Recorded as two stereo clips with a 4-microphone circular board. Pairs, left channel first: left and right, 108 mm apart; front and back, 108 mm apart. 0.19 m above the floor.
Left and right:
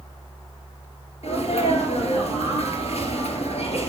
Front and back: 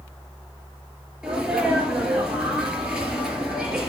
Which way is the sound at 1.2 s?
95° left.